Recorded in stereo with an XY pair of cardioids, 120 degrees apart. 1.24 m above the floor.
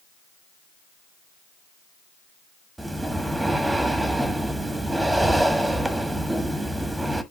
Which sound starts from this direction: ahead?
Breathing, at 2.8 s.